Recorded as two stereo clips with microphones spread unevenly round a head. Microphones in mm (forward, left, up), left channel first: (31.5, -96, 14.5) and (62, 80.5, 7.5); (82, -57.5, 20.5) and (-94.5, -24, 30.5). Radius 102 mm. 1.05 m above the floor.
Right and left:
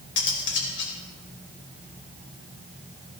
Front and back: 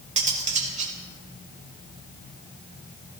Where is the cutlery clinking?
140° right, 2.5 m.